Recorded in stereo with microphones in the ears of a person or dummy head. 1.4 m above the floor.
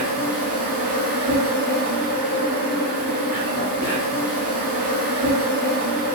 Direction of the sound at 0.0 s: 40° right (ahead or behind).